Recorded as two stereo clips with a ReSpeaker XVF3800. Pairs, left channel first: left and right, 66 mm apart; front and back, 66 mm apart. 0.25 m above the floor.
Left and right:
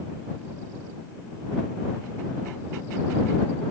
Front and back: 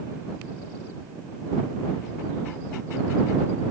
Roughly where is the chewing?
I don't hear chewing.